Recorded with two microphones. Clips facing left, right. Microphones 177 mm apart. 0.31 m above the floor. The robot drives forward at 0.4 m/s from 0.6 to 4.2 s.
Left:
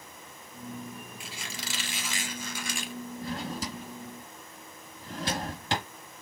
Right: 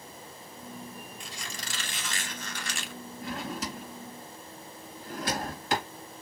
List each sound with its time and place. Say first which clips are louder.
1.2 s a squeak: left 1 dB; 10° left (ahead or behind), 1.6 m; by 2.9 s 15° left (ahead or behind), 0.9 m
3.2 s a drawer: right 1 dB; 40° left (ahead or behind), 2 m; by 5.9 s 35° left (ahead or behind), 2.5 m